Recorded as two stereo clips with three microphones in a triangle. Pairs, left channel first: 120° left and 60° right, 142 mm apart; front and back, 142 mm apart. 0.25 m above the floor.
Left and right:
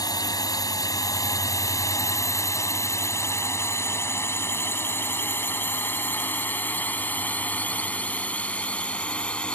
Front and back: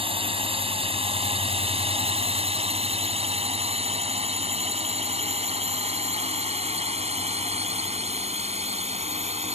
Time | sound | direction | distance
0.0 | a drone | 165° left | ?